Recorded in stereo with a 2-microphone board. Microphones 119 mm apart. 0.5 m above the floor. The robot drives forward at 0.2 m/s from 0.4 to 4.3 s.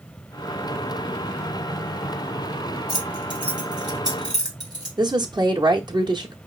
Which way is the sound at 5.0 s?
35° right (ahead or behind).